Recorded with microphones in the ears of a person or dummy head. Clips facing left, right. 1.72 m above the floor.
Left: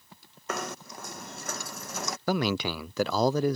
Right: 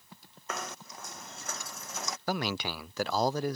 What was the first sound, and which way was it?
Knocking, 60° left (ahead or behind).